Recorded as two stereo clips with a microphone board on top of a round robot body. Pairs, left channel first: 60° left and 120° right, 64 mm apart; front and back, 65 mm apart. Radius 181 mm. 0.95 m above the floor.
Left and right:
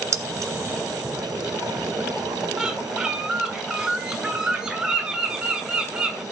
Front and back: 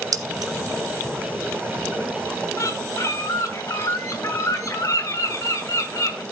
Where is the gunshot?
I don't hear a gunshot.